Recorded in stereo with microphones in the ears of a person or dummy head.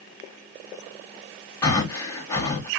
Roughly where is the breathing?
Left.